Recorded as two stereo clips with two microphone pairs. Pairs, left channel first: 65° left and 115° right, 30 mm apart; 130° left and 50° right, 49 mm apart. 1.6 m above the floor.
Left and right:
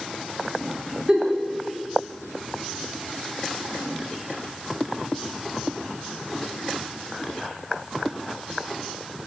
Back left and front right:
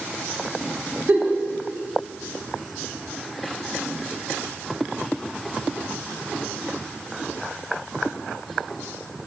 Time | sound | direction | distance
1.1 | a giggle | 60° right | 1.0 m